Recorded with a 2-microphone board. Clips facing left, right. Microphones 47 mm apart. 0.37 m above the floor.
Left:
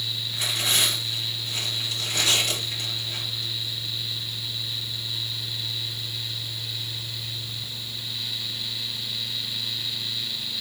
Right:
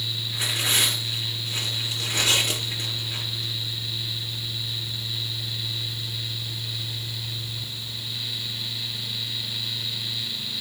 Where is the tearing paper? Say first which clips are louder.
Right 1 dB; 25° right (ahead or behind), 6 m.